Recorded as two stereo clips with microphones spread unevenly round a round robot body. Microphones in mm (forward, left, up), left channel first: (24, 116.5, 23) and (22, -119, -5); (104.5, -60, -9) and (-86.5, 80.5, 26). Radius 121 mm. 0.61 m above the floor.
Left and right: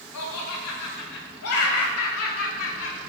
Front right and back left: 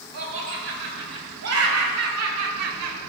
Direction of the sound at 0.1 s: 115° left.